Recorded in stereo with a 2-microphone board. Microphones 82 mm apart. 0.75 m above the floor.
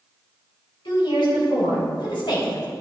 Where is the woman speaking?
80° left, 3.5 m.